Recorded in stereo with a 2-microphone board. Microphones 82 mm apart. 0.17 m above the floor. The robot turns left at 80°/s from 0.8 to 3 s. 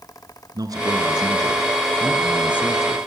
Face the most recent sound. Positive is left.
turn(degrees=115)